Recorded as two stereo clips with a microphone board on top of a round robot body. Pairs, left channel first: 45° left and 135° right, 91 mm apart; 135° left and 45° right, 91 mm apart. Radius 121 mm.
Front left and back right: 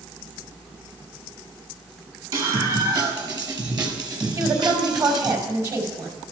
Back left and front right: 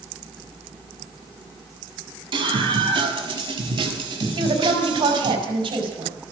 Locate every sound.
2.3 s a scream: 85° right, 6.5 m; by 5.4 s 90° right, 3.5 m
4.4 s a woman speaking: 80° right, 5 m